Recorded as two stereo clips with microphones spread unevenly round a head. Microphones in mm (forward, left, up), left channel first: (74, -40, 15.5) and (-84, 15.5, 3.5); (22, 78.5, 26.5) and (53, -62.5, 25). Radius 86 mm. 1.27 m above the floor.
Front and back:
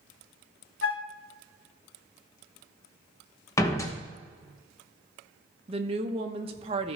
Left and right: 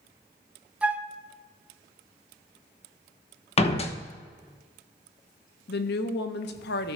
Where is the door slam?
55° left, 1.0 m.